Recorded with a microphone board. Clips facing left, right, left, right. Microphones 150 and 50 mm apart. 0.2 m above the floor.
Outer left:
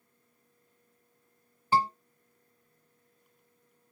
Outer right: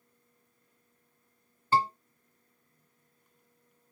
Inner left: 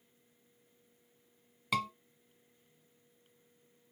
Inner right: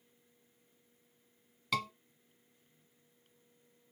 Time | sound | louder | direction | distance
1.7 | a scream | even, inner left 2 dB | 15° left (ahead or behind) | 1.5 m